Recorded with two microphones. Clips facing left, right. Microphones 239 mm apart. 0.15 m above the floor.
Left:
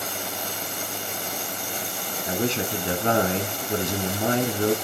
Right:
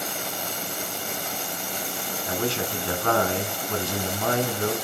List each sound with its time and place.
2.3 s a man speaking: 20° left (ahead or behind), 1.1 m